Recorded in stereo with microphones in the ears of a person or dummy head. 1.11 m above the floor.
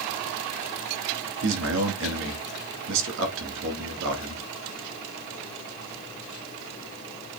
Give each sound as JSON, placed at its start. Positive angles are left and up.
{"t": 1.4, "sound": "a man speaking", "side_deg": -70, "distance_m": 2.5}